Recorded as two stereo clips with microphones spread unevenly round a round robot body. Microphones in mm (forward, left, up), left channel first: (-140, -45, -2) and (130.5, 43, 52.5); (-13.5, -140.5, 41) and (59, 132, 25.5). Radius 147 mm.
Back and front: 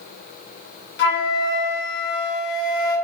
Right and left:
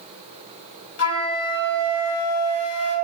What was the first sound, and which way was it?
A flute, 130° right.